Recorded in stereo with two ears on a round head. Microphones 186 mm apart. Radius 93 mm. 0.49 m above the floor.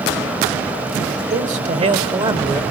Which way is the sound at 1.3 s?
40° right (ahead or behind).